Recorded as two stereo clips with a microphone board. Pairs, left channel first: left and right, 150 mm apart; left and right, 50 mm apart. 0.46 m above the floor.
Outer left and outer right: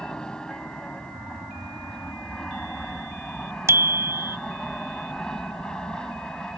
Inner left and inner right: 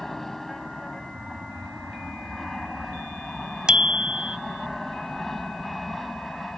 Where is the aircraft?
5° left (ahead or behind).